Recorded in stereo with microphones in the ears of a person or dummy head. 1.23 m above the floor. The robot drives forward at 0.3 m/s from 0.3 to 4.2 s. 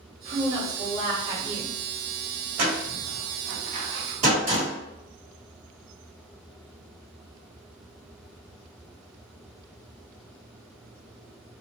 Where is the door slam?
50° right (ahead or behind), 1.1 m; by 4.7 s 35° right (ahead or behind), 1.4 m.